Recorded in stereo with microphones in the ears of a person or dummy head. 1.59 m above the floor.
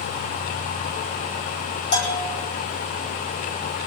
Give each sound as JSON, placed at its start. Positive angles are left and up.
{"t": 1.9, "sound": "a bell", "side_deg": 60, "distance_m": 3.5}